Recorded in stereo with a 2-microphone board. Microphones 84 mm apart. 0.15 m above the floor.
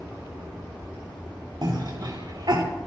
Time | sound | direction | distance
1.6 | a cough | 60° right (ahead or behind) | 3 m